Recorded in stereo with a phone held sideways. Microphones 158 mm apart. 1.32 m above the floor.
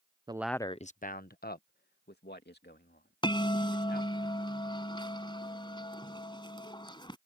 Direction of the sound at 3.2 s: 30° left (ahead or behind).